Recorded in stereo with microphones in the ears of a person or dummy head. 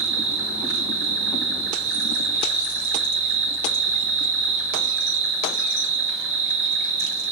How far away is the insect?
About 0.9 m.